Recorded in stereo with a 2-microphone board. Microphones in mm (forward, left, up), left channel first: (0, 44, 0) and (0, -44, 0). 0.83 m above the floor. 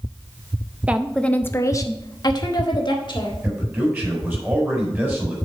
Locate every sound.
0.9 s a woman speaking: 15° right (ahead or behind), 0.5 m; by 3.3 s 55° left (ahead or behind), 1.8 m
3.4 s a man speaking: 20° right (ahead or behind), 4 m